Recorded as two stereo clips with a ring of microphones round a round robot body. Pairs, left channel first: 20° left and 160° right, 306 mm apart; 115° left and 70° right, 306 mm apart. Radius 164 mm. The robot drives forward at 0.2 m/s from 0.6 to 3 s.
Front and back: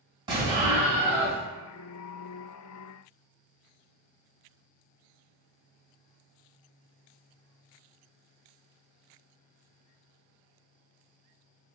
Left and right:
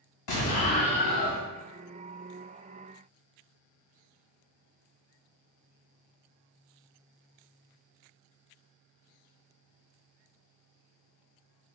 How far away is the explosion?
About 1.6 m.